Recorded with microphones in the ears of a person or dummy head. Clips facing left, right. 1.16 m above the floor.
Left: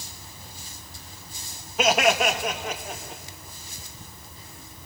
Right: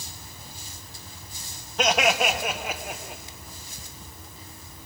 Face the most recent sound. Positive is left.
turn(degrees=-15)  # may be behind; listen again after turning